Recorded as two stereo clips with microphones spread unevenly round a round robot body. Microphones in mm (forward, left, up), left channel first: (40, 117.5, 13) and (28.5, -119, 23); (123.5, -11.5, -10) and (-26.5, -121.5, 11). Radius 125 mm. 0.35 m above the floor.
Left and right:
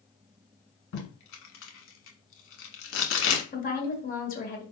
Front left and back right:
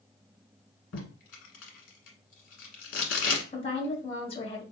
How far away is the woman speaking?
About 1.7 m.